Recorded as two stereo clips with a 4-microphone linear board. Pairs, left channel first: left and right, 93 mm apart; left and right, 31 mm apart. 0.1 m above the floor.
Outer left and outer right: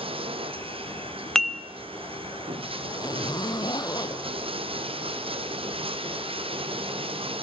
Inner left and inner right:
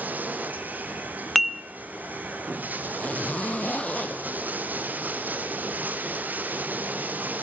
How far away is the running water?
About 1.4 m.